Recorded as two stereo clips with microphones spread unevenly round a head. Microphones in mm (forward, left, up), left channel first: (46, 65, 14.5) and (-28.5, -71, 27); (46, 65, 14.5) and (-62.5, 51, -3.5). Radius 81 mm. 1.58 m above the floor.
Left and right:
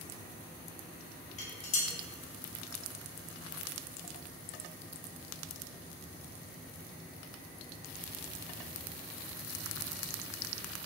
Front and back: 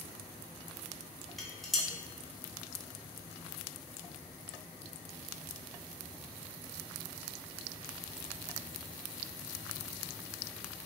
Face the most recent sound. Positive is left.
turn(degrees=80)